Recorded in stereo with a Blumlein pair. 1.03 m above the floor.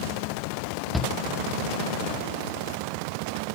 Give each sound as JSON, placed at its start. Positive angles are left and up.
{"t": 0.9, "sound": "a shout", "azimuth_deg": -5, "distance_m": 0.6}